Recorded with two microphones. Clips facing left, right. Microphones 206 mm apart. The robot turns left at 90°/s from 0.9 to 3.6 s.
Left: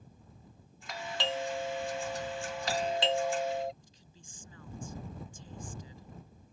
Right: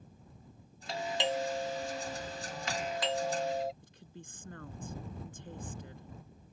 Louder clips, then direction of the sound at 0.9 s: Right 3 dB; 120° right.